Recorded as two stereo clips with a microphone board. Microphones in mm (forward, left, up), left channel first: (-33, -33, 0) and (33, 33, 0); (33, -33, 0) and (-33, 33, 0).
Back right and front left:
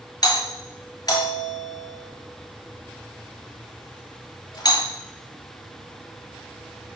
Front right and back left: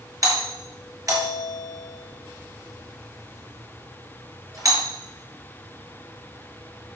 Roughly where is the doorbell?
Behind.